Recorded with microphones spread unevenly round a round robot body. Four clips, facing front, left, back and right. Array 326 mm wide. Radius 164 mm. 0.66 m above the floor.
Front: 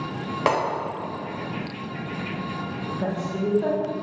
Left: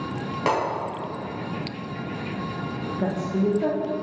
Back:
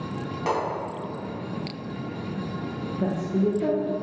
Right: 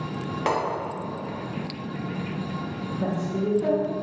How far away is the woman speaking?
About 0.7 m.